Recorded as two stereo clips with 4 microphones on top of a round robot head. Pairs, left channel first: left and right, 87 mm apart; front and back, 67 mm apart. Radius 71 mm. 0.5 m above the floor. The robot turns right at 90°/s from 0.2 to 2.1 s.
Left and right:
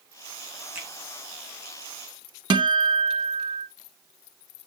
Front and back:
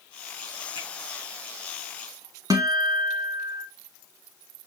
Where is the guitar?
125° right, 0.8 m.